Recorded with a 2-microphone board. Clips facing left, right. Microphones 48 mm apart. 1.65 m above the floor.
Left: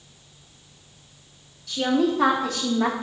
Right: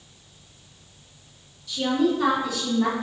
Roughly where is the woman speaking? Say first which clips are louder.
Left 1 dB; left.